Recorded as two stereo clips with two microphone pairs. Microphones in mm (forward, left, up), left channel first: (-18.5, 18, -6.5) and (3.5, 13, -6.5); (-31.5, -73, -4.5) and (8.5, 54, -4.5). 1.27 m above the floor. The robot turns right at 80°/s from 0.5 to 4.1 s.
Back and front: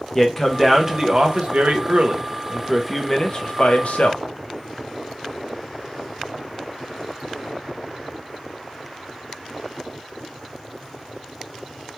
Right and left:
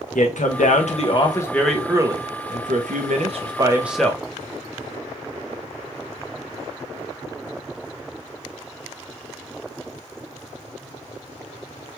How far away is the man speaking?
About 0.7 m.